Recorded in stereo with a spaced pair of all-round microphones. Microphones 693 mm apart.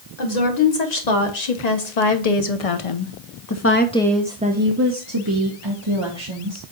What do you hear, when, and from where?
0.2 s a woman speaking: 70° left (ahead or behind), 2 m; by 6.6 s 45° right (ahead or behind), 1.7 m